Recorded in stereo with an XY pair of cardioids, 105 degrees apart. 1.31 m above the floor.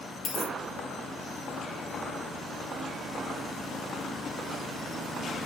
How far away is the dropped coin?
About 3.5 m.